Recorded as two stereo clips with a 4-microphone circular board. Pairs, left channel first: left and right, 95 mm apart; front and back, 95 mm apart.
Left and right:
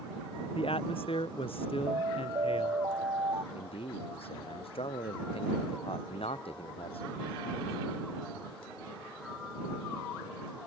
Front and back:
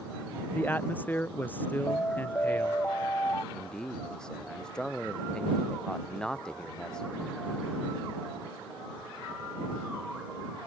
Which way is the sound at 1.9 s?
60° right.